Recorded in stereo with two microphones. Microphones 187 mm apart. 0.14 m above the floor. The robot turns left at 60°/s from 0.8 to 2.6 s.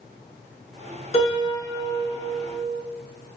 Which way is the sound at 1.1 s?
125° left.